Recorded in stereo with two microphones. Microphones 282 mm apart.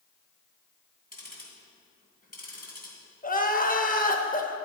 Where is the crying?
30° left (ahead or behind), 1.0 m.